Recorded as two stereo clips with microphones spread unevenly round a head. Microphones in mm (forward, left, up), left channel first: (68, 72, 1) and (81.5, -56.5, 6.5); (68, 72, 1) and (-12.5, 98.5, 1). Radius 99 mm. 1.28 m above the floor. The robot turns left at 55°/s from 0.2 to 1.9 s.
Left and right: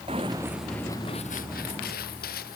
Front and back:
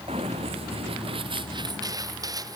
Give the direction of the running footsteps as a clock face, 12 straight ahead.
5 o'clock.